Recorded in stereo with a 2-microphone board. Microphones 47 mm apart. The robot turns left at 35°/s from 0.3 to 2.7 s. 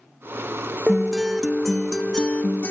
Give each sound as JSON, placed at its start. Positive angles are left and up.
{"t": 0.9, "sound": "a guitar", "azimuth_deg": -160, "distance_m": 0.6}